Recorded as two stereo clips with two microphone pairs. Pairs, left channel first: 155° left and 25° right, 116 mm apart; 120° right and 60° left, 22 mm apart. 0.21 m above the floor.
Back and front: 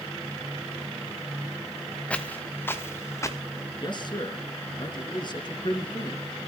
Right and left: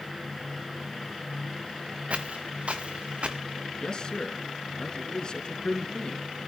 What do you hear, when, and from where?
2.1 s footsteps: 75° left, 1.6 m; by 3.4 s 90° left, 2 m
3.8 s a man speaking: 165° right, 3.5 m